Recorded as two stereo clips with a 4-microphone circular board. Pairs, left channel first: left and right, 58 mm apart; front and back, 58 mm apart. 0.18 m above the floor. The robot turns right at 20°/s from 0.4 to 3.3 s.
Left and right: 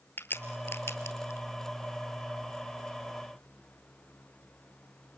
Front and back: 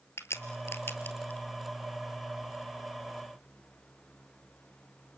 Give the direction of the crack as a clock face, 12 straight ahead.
11 o'clock.